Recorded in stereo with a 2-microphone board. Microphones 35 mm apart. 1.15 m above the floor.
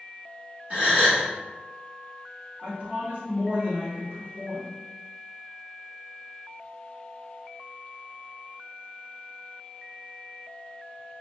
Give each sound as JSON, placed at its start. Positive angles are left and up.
{"t": 0.7, "sound": "a gasp", "side_deg": -45, "distance_m": 1.2}
{"t": 2.6, "sound": "a woman speaking", "side_deg": -55, "distance_m": 1.4}